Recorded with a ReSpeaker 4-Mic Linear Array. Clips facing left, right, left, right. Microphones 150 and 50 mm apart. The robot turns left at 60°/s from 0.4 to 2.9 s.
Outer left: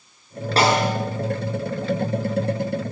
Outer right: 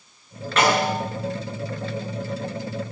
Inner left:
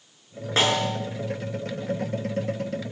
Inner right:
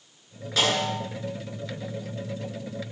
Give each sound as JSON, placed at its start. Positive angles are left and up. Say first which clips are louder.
{"t": 0.6, "sound": "a snare drum", "louder": "outer left 1 dB, inner left 2 dB", "side_deg": 35, "distance_m": 9.5}